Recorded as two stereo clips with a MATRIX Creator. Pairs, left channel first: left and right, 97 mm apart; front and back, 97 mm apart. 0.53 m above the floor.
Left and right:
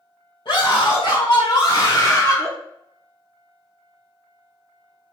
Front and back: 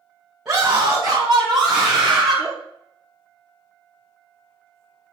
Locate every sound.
0.5 s a scream: 100° left, 3.5 m; by 2.5 s 90° left, 1.5 m